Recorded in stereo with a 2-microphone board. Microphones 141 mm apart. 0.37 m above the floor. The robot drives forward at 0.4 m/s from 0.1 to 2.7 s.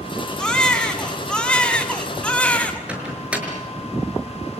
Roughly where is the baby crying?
Centre.